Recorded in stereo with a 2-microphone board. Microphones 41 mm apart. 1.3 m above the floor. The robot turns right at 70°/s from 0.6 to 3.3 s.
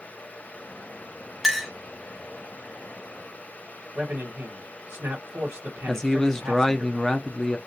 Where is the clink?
5° right (ahead or behind), 0.5 m; by 1.7 s 15° left (ahead or behind), 0.5 m.